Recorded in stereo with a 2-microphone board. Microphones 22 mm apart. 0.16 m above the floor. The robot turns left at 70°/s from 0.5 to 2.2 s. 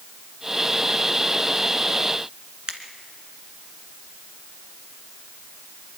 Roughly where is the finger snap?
Right.